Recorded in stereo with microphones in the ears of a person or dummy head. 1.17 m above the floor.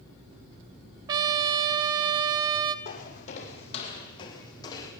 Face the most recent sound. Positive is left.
turn(degrees=25)  # may be behind; listen again after turning